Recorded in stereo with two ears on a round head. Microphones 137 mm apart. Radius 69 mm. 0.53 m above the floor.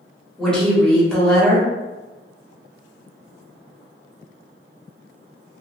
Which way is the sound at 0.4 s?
5° left (ahead or behind).